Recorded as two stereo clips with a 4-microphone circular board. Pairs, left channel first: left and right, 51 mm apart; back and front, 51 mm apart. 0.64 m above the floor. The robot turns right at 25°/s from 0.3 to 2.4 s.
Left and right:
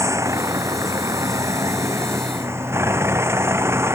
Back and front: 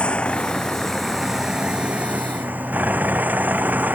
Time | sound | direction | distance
0.0 | a vehicle | 110° right | ?